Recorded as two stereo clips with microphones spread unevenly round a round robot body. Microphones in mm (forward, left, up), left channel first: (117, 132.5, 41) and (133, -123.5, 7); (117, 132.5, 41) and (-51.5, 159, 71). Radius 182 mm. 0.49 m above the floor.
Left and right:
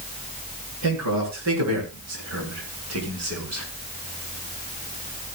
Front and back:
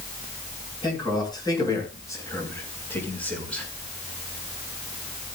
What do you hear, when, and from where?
0.8 s a man speaking: 105° right, 8 m; by 3.6 s 130° right, 6.5 m